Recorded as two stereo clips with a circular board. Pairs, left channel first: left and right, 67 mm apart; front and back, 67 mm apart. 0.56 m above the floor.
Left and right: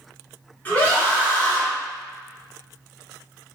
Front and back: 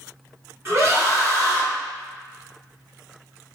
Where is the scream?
145° left, 1.7 m.